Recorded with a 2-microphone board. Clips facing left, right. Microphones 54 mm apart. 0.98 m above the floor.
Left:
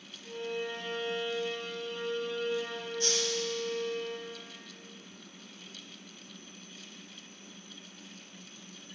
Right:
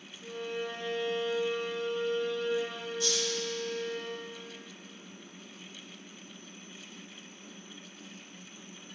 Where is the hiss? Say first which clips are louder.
Even; 50° left (ahead or behind), 1.1 m.